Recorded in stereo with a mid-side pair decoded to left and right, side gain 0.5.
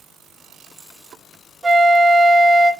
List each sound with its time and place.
1.6 s a flute: 30° right, 0.6 m